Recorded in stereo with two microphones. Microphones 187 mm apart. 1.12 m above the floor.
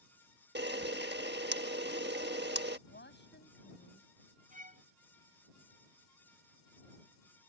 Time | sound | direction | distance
0.6 | a camera shutter | 70° right (ahead or behind) | ?
2.9 | a woman speaking | 70° left (ahead or behind) | ?
4.5 | a violin | 45° right (ahead or behind) | ?